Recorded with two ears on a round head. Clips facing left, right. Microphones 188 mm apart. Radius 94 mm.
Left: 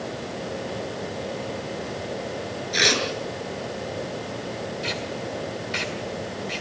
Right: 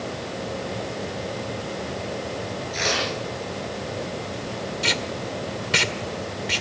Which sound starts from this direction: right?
Tape being pulled, at 4.8 s.